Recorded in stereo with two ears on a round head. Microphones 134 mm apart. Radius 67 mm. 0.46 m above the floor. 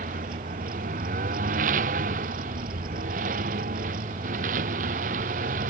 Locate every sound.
0.0 s a lawn mower: 55° right (ahead or behind)